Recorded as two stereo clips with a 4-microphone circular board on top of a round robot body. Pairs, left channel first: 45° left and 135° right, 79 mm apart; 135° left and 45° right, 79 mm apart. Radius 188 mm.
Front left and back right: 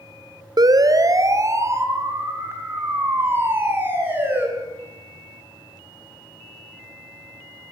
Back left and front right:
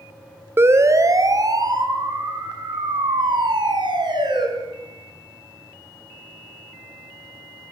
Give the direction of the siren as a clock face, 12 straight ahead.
3 o'clock.